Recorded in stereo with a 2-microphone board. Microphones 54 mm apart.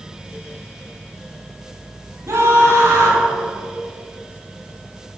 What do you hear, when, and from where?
2.3 s a scream: 65° right (ahead or behind), 5.5 m